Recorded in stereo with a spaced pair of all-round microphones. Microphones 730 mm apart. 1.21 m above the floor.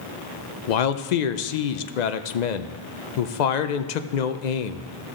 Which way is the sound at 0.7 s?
70° left (ahead or behind).